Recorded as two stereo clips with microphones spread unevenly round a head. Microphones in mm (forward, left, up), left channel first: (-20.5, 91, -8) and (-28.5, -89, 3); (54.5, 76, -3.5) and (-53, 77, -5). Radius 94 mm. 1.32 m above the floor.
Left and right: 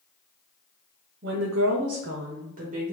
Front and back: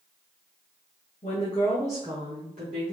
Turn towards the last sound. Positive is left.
turn(degrees=-145)